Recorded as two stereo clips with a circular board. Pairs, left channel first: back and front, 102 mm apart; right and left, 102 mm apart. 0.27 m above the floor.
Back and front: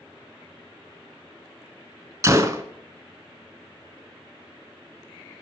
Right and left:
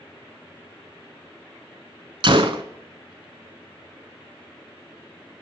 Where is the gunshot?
60° left, 0.5 m.